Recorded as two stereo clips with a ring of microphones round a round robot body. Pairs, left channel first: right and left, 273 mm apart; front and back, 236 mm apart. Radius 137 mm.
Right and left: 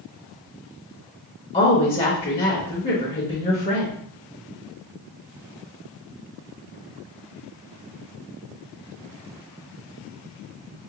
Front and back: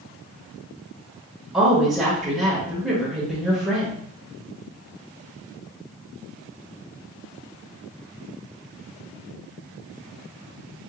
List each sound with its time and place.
1.5 s a woman speaking: 95° right, 0.9 m